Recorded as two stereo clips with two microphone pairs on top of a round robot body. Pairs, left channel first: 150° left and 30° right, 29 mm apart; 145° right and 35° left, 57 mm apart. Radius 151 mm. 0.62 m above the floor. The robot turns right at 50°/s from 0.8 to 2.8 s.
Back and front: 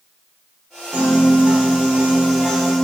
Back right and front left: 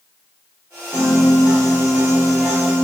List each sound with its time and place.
0.9 s a piano: 20° right, 1.7 m; by 2.9 s 75° left, 1.7 m